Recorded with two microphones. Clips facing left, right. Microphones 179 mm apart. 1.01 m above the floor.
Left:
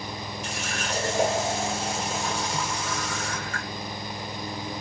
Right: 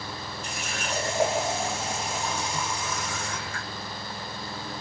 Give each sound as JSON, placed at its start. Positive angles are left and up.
{"t": 0.4, "sound": "a running tap", "side_deg": 80, "distance_m": 2.0}